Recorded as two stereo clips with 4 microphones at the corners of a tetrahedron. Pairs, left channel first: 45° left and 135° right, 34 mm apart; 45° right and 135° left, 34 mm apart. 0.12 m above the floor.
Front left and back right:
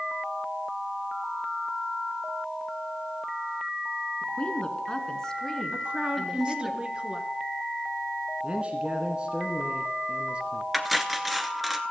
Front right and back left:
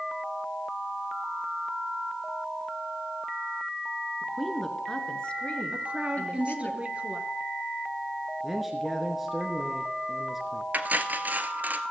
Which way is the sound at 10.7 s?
140° left.